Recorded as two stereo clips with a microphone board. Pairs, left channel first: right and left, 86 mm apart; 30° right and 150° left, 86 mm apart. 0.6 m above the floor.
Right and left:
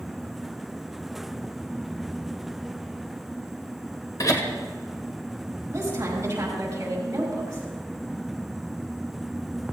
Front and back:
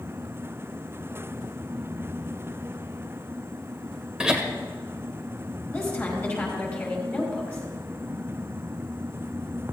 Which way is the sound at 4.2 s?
130° right.